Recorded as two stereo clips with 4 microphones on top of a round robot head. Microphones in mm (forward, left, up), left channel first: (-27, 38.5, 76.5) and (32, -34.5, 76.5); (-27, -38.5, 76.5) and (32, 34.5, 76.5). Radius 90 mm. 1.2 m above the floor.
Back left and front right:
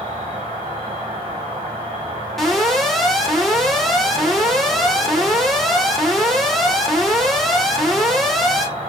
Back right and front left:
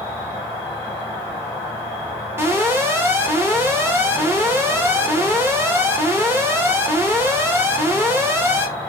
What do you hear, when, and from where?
0.0 s an insect: 65° right, 1.0 m
2.4 s an alarm: 45° left, 0.8 m